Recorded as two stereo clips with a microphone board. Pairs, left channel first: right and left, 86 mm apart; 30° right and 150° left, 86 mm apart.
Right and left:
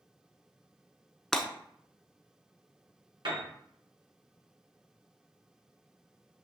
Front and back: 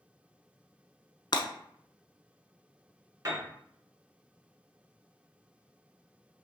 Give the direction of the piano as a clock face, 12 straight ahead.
9 o'clock.